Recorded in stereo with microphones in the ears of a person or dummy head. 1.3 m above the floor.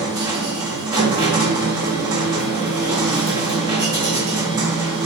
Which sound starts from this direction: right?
A machine running, at 0.0 s.